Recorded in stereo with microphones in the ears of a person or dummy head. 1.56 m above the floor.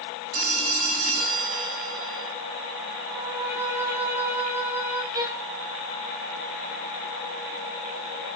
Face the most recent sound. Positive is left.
turn(degrees=-15)  # may be behind; listen again after turning